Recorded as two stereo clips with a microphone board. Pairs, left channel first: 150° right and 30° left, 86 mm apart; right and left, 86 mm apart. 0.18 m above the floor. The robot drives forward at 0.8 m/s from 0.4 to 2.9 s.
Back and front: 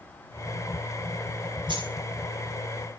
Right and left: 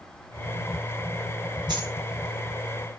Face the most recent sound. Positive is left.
turn(degrees=65)